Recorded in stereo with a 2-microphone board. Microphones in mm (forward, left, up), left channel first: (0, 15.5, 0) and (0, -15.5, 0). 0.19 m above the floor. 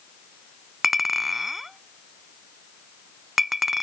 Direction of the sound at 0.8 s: 10° right (ahead or behind).